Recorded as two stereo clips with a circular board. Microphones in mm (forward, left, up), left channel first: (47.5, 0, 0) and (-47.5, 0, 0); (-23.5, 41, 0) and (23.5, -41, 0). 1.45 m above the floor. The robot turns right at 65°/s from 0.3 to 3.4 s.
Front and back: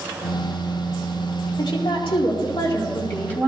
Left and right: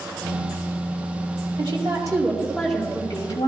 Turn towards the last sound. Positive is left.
turn(degrees=75)